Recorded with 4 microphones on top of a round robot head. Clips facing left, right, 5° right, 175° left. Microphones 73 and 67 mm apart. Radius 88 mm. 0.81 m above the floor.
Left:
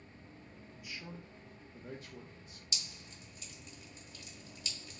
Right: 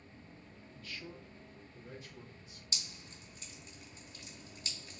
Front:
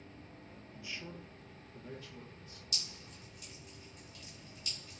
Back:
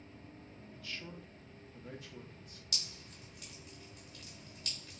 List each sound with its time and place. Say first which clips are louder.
0.8 s a man speaking: even, front 1 dB; 20° left, 0.6 m; by 2.6 s 95° left, 1.2 m
2.7 s dripping: even, back 1 dB; 145° right, 0.9 m